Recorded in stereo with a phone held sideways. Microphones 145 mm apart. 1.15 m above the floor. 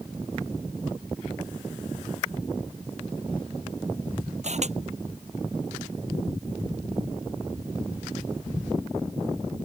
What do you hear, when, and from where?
4.4 s a camera shutter: 50° right (ahead or behind)